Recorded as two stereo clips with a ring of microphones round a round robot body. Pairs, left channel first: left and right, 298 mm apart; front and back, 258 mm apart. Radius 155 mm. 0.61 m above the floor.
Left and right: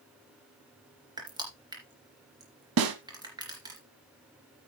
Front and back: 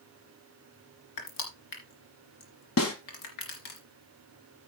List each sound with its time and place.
1.2 s crushing: 10° right, 3 m
2.8 s a snare drum: 45° right, 1.3 m